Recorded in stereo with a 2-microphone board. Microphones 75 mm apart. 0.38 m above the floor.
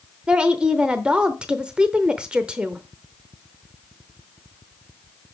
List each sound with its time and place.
0.3 s a woman speaking: 15° right (ahead or behind), 0.8 m